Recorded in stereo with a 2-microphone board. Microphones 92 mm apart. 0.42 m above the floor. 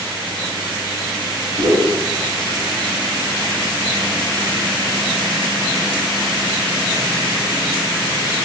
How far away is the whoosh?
About 4 m.